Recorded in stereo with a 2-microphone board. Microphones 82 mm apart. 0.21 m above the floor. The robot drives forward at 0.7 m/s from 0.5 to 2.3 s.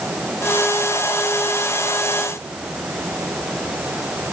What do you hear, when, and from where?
Only background noise.